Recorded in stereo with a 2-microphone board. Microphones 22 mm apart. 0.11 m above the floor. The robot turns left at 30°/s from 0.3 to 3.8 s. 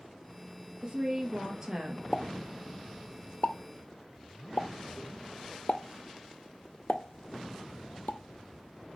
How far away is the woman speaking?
About 2 m.